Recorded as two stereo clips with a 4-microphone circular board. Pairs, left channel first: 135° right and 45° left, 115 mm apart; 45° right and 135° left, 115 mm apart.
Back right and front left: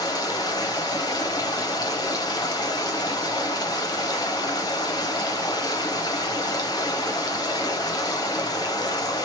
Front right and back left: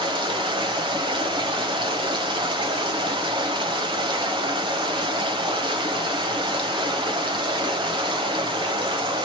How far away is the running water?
About 0.8 m.